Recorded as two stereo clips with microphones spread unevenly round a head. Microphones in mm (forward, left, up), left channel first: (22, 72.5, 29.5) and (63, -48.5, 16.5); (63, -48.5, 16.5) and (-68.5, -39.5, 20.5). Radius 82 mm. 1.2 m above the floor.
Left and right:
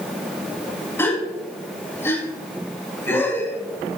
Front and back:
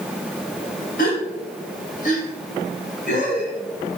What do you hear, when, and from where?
1.0 s a gasp: 40° left, 2.5 m